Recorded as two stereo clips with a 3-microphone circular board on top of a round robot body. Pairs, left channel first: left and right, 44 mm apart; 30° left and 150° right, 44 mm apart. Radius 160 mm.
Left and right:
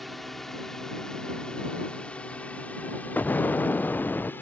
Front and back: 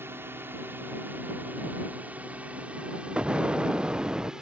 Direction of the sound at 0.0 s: Straight behind.